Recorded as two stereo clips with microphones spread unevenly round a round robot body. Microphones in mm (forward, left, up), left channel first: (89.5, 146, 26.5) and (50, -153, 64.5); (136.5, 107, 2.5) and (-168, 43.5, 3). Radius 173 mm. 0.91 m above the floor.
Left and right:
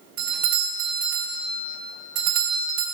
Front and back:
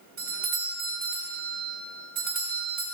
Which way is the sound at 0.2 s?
100° right.